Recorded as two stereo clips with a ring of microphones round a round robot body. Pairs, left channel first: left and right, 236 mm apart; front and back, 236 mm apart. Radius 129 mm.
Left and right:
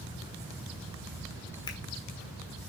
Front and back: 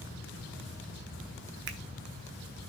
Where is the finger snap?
160° left, 1.2 m.